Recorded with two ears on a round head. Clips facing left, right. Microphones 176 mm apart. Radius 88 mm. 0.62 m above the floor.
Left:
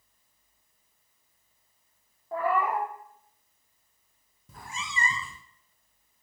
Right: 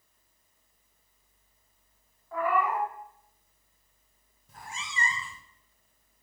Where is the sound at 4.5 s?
70° left (ahead or behind), 0.5 m.